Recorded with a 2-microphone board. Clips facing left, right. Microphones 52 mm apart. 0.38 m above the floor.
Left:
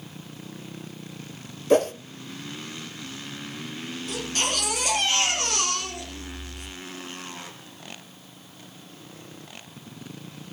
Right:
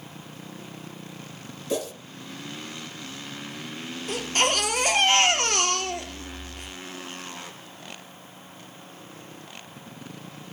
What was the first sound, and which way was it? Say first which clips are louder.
A whoosh: left 10 dB; 50° left (ahead or behind).